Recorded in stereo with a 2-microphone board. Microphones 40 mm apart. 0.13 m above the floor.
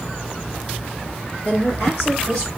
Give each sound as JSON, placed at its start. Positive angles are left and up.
{"t": 1.4, "sound": "a woman speaking", "side_deg": 50, "distance_m": 3.0}